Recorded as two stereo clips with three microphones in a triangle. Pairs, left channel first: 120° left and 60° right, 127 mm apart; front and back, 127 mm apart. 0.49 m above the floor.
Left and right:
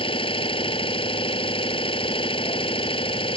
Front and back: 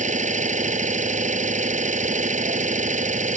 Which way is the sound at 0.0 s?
165° left.